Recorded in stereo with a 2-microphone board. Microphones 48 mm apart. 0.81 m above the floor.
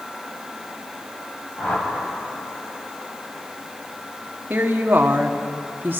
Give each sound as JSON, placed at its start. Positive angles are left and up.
{"t": 1.6, "sound": "a whoosh", "side_deg": 30, "distance_m": 4.5}
{"t": 4.5, "sound": "a woman speaking", "side_deg": -45, "distance_m": 1.5}